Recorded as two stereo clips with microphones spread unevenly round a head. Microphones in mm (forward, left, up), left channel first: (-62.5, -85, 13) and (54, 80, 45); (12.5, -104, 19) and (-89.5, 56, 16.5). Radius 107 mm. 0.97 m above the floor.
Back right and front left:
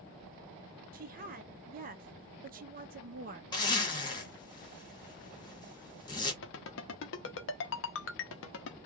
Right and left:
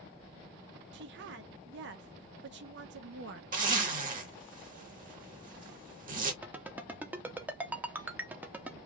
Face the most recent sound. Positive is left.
turn(degrees=-155)